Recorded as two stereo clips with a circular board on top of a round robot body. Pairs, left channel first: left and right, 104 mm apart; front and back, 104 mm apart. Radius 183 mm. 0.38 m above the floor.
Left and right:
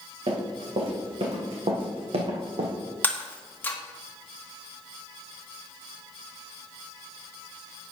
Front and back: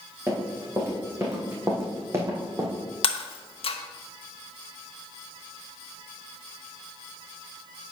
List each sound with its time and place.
0.3 s running footsteps: 110° right, 3.5 m; by 2.7 s 115° right, 1.6 m
3.0 s breaking glass: 20° left, 1.1 m